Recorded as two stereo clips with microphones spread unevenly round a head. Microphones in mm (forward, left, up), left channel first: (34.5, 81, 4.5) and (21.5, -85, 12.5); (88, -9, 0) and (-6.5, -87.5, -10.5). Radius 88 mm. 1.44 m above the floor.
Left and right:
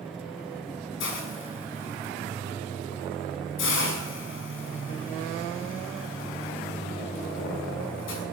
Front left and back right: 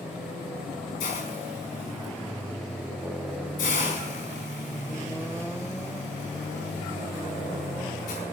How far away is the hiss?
About 6.5 m.